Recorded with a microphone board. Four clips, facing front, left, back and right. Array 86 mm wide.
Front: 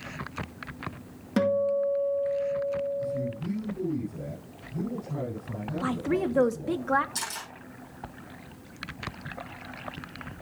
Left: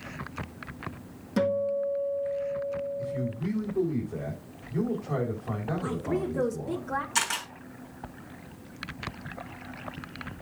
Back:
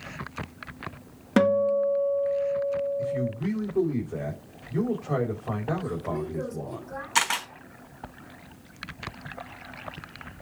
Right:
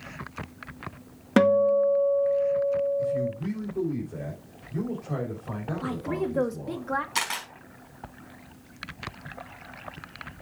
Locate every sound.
1.4 s a guitar: 120° right, 1.8 m
3.0 s a man speaking: 175° left, 4.5 m
5.8 s a woman speaking: 15° right, 1.8 m
7.2 s a camera shutter: 170° right, 4 m